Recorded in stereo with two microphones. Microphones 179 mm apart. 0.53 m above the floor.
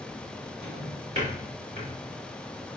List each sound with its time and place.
0.6 s a drawer: 35° right (ahead or behind), 5 m